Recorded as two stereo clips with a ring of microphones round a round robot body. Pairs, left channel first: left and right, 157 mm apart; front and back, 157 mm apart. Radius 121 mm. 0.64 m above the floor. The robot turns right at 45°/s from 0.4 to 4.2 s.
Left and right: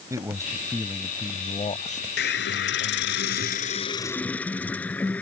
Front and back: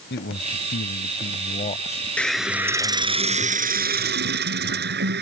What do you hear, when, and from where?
0.1 s a man speaking: 20° right; by 3.2 s 105° left
2.2 s a hiss: 80° left; by 5.2 s 175° left